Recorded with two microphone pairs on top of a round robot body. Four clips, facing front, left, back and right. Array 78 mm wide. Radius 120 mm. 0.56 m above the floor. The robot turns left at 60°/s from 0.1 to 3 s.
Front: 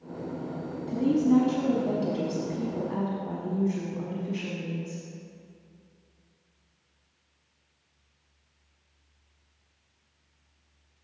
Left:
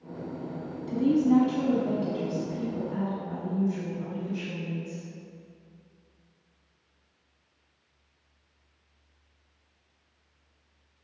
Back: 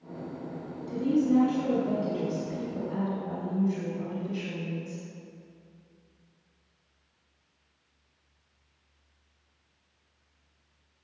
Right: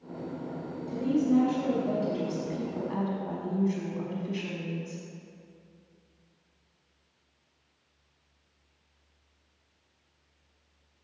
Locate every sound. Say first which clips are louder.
0.9 s a woman speaking: left 3 dB, front 2 dB; 85° left, 1.2 m; by 5.0 s 45° right, 1.2 m